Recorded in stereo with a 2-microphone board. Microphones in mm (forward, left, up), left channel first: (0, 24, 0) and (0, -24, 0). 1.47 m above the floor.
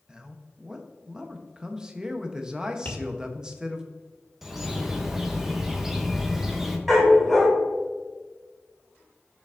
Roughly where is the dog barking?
Centre.